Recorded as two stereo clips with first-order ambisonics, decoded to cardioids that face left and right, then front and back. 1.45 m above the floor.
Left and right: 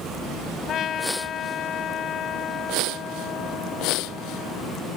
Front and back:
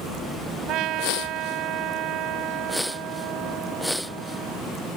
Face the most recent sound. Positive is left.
turn(degrees=145)